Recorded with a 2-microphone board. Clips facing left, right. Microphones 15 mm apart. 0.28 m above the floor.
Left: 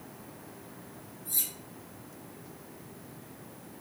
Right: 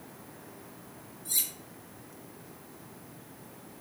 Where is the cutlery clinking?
60° right (ahead or behind), 1.2 m.